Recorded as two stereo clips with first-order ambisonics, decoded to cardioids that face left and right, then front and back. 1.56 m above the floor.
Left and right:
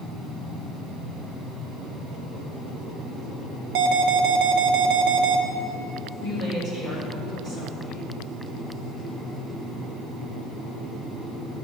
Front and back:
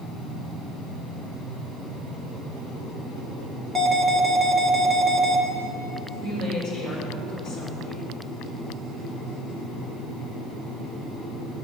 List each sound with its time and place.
3.8 s an alarm: 95° right, 1.3 m
6.2 s a woman speaking: 45° right, 5 m